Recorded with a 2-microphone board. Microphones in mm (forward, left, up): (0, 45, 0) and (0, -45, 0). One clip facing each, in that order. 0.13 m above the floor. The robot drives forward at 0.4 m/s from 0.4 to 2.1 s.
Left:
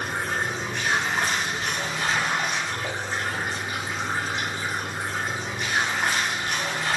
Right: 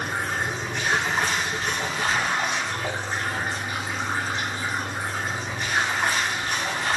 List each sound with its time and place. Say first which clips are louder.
0.0 s running water: even; 25° right (ahead or behind), 1.8 m; by 7.0 s 40° right (ahead or behind), 1.2 m